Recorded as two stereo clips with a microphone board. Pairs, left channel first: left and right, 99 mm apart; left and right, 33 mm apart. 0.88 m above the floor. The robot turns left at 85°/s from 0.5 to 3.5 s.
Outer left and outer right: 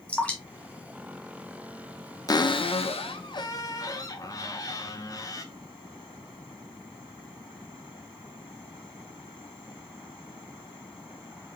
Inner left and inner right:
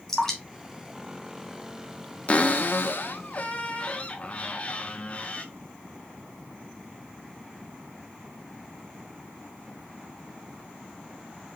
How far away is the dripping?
About 1.7 m.